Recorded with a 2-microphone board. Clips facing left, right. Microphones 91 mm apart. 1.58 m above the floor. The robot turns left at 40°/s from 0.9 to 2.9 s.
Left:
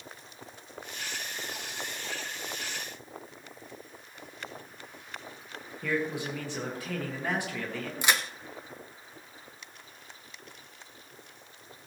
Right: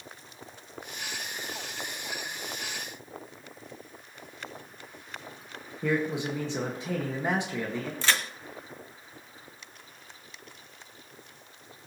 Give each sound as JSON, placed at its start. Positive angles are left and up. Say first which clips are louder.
{"t": 5.8, "sound": "a man speaking", "louder": "right 3 dB", "side_deg": -25, "distance_m": 1.7}
{"t": 8.0, "sound": "a crack", "louder": "left 1 dB", "side_deg": 15, "distance_m": 1.1}